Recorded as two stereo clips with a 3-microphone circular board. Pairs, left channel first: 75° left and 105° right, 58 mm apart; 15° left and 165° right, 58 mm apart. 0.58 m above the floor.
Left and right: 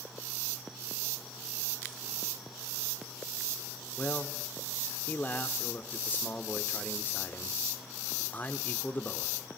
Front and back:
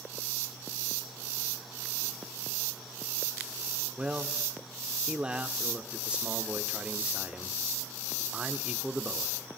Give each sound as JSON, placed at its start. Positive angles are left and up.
{"t": 4.0, "sound": "a man speaking", "azimuth_deg": 130, "distance_m": 1.3}